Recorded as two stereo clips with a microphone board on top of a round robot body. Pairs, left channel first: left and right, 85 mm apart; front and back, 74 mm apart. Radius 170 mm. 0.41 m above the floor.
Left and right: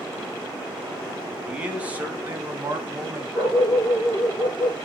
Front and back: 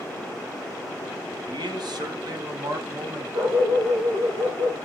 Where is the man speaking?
165° right, 3 m; by 3.2 s 150° right, 3.5 m.